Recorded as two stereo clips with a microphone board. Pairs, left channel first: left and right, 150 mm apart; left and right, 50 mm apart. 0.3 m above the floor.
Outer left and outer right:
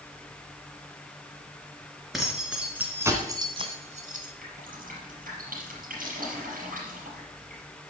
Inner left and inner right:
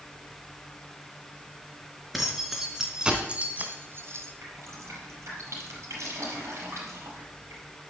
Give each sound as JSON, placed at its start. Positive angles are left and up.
{"t": 2.1, "sound": "keys jangling", "side_deg": 0, "distance_m": 3.0}
{"t": 4.4, "sound": "dripping", "side_deg": -65, "distance_m": 5.0}